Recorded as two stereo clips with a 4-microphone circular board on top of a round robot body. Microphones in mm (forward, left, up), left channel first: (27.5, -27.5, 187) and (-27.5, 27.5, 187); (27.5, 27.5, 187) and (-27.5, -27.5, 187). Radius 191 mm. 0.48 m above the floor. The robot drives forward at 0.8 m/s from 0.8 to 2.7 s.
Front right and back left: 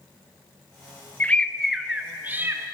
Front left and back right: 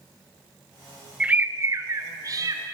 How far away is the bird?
About 0.8 m.